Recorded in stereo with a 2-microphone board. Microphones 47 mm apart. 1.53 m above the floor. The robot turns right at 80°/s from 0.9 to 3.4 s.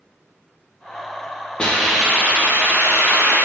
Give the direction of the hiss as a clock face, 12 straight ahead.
7 o'clock.